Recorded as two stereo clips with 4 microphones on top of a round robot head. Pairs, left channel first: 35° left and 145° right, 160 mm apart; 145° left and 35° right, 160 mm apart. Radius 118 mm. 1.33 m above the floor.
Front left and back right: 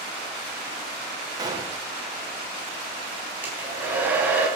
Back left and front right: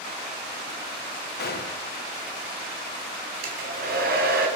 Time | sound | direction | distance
1.4 | a gunshot | 150° left | 3.5 m
3.4 | a hair dryer | 65° right | 3.5 m